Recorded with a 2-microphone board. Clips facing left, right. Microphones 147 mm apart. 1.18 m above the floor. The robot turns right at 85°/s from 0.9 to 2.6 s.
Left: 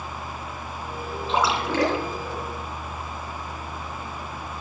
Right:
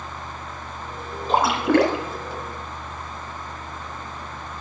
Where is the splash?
130° right, 2.5 m; by 2.0 s 70° right, 2.5 m.